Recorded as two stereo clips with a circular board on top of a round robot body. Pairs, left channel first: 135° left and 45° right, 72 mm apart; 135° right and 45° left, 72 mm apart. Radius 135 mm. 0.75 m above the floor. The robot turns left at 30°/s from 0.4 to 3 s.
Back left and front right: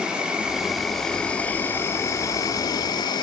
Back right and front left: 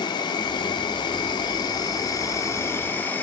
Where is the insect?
120° right, 1.1 m; by 3.2 s 160° left, 1.1 m.